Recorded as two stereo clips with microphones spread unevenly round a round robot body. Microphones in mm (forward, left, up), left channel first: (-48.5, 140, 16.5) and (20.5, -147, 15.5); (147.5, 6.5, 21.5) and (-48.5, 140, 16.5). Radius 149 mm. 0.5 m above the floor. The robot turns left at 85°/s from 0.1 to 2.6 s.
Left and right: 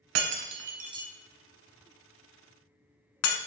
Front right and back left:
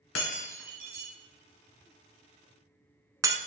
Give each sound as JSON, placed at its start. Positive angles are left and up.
{"t": 0.1, "sound": "breaking glass", "azimuth_deg": -85, "distance_m": 1.5}